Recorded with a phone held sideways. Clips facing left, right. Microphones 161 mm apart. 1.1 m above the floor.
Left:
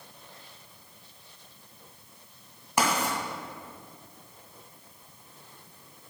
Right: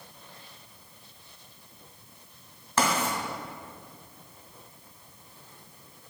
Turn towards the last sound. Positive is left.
turn(degrees=15)  # may be behind; listen again after turning